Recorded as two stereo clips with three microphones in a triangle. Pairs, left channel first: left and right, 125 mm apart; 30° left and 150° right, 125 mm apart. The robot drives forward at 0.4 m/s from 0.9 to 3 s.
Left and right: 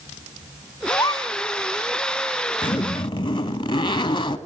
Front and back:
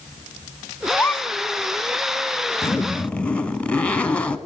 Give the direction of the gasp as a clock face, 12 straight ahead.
9 o'clock.